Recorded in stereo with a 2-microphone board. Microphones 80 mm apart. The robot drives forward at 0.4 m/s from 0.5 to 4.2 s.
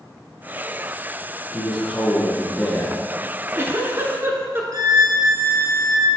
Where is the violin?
55° right (ahead or behind), 0.8 m.